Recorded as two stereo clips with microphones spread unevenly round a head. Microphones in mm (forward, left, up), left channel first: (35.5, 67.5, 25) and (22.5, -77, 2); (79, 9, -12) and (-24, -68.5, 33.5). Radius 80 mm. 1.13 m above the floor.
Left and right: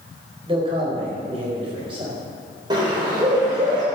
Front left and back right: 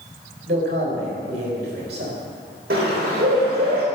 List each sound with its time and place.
0.5 s a man speaking: 160° right, 4.5 m
2.7 s a bird: 165° right, 3.5 m